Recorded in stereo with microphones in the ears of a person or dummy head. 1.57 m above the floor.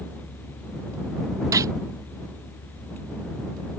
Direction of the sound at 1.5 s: 20° right (ahead or behind).